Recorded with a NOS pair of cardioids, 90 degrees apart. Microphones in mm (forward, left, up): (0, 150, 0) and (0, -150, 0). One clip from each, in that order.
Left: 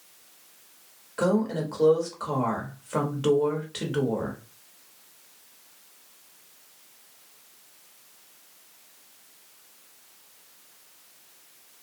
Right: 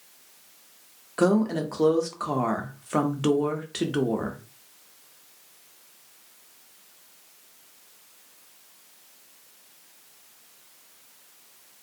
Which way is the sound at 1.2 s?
20° right.